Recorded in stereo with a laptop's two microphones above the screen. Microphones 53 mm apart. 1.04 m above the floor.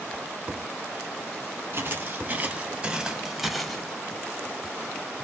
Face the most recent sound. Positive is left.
turn(degrees=10)  # may be behind; listen again after turning